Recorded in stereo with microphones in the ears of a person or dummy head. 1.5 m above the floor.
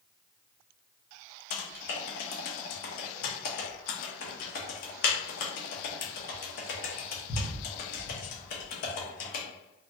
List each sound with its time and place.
1.5 s typing on a keyboard: 45° left (ahead or behind), 0.8 m